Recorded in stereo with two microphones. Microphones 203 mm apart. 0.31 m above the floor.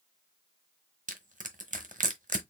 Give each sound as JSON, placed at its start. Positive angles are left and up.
{"t": 1.1, "sound": "crushing", "side_deg": -40, "distance_m": 0.9}